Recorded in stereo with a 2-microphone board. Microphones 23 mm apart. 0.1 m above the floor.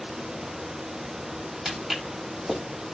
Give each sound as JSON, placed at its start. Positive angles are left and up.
{"t": 1.6, "sound": "footsteps", "side_deg": -35, "distance_m": 6.0}